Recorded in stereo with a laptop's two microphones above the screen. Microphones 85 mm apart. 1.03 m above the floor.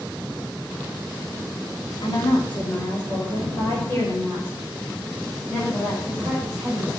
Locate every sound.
2.0 s a woman speaking: 70° left (ahead or behind), 2.5 m; by 6.9 s 5° left (ahead or behind), 6 m